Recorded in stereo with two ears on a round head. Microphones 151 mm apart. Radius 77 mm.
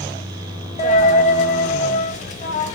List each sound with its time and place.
0.8 s a dropped coin: 45° left (ahead or behind), 0.9 m